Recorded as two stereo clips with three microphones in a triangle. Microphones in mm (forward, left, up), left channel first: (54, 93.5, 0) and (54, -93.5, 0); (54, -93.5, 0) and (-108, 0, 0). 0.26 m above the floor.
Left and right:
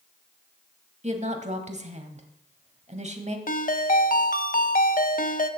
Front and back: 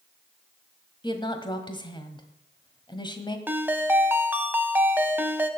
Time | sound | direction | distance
1.0 | a woman speaking | 80° right | 1.3 m
3.5 | a ringtone | 75° left | 0.7 m